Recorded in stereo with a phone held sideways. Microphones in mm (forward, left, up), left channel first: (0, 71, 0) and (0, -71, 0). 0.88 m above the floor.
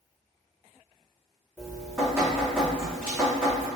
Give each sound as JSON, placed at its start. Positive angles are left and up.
{"t": 1.6, "sound": "dripping", "side_deg": -15, "distance_m": 1.2}